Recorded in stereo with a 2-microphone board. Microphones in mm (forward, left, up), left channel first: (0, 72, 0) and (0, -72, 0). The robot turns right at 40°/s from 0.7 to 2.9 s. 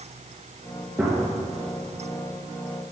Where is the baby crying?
No baby crying in this recording.